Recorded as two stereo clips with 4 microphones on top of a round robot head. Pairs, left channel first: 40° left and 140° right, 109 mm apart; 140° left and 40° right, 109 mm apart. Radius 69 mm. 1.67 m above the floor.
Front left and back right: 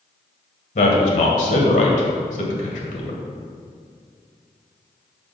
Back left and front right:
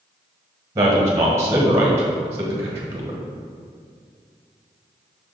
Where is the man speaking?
25° left, 1.7 m.